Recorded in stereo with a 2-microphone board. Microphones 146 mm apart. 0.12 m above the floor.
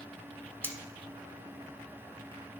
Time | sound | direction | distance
0.6 | cutlery clinking | 15° left (ahead or behind) | 0.8 m